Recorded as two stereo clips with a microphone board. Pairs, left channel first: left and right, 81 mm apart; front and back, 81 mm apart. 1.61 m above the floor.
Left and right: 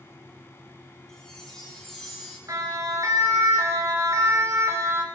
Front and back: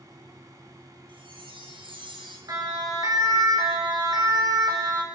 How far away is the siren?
About 7 m.